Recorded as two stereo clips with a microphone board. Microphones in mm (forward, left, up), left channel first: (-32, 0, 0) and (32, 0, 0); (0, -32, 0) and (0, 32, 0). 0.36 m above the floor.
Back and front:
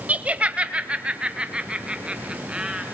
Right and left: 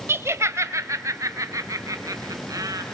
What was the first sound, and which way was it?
Laughter, 60° left.